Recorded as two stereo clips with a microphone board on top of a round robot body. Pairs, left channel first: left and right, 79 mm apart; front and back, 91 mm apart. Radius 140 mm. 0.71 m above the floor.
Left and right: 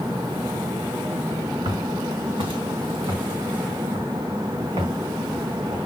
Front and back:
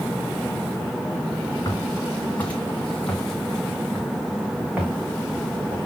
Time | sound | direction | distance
1.6 | footsteps | 65° right | 2.5 m